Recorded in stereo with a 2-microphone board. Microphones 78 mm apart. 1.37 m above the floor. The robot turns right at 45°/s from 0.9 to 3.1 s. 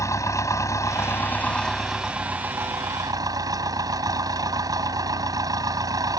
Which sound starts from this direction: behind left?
An engine running, at 0.0 s.